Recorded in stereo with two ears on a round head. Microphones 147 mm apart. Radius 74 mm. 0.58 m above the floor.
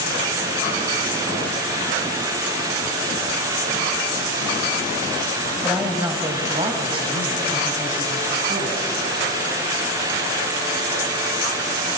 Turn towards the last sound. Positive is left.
turn(degrees=-50)  # may be behind; listen again after turning